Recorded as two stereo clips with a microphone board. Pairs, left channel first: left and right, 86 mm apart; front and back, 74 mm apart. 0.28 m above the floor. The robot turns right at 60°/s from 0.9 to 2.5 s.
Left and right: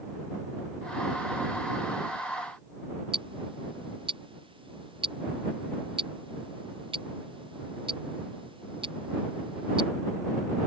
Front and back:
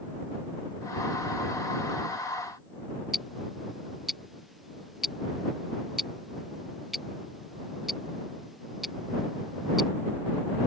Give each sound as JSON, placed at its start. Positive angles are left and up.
{"t": 3.1, "sound": "ticking", "azimuth_deg": -90}